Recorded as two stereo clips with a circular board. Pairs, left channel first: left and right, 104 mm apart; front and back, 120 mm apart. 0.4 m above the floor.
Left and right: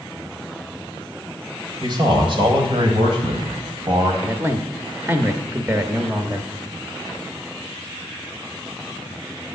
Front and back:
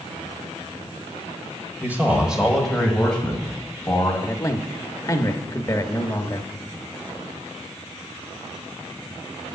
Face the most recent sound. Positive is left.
turn(degrees=-40)